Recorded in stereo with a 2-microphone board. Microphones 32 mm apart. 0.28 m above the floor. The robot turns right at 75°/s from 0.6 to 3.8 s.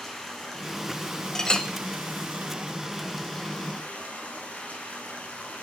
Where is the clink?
15° left (ahead or behind), 0.5 m; by 1.7 s 25° left (ahead or behind), 0.5 m.